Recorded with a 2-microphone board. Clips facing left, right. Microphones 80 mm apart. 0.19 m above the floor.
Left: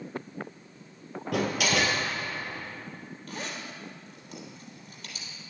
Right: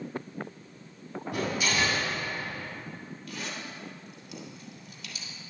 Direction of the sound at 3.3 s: 45° left (ahead or behind).